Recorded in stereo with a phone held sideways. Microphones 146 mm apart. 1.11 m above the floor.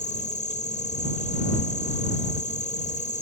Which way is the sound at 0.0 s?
55° left (ahead or behind).